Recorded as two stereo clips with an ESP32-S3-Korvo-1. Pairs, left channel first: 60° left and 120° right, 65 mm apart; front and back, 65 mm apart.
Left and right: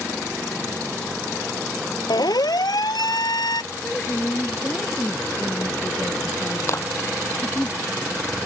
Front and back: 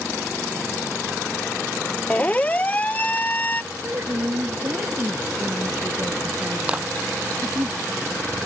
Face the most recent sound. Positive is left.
turn(degrees=110)